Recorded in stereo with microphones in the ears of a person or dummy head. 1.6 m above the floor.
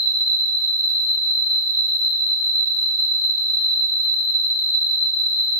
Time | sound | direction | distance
0.0 | an insect | 25° left (ahead or behind) | 1.5 m